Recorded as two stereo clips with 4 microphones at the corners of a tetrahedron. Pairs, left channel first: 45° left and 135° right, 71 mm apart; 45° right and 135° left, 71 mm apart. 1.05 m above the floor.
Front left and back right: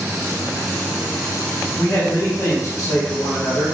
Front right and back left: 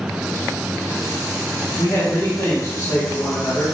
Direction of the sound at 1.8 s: Straight ahead.